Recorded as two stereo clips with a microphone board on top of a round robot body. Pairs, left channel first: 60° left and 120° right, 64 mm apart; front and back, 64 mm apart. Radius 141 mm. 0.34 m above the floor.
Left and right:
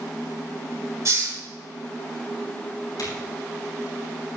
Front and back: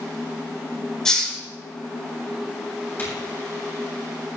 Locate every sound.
1.1 s a hiss: 80° right, 5 m
3.0 s a crack: 60° left, 7 m